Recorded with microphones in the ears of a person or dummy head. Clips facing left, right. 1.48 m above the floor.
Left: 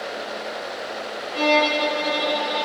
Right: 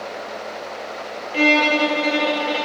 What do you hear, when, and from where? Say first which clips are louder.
1.3 s a violin: right 2 dB; 35° right (ahead or behind), 1.3 m